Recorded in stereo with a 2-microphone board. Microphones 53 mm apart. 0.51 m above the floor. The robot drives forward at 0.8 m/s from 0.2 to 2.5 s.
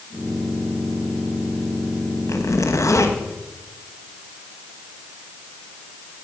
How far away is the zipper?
About 1.4 m.